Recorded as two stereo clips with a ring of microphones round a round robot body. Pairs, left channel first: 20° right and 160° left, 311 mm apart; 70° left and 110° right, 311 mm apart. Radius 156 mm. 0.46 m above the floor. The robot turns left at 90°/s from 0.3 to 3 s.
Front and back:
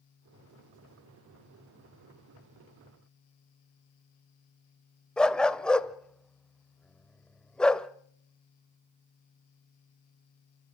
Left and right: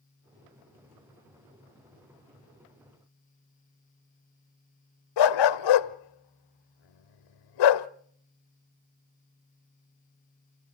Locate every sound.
5.2 s a dog barking: 65° left, 0.8 m